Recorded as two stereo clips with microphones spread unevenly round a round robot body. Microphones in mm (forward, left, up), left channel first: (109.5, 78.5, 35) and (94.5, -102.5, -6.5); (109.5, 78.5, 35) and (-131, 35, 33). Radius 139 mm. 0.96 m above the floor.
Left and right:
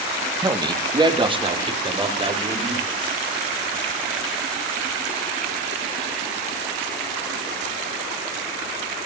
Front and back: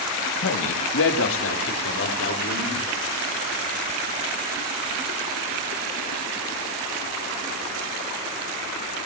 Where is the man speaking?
30° right, 1.8 m; by 2.9 s 40° right, 5 m.